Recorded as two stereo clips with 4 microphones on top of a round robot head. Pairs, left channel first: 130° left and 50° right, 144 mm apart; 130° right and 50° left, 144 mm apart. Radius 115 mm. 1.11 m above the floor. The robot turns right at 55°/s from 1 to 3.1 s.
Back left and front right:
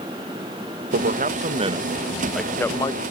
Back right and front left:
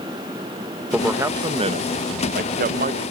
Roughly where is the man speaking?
Ahead right.